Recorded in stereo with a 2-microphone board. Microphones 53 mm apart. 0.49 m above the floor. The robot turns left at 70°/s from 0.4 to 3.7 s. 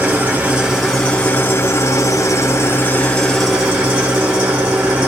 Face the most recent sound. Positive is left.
turn(degrees=-25)